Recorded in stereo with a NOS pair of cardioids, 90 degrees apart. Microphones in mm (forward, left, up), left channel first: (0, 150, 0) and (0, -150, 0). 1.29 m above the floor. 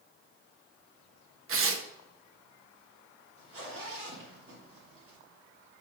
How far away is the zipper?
About 3.5 m.